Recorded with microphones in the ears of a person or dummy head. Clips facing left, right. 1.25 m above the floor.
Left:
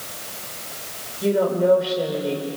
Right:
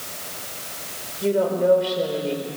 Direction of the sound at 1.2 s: 5° left (ahead or behind).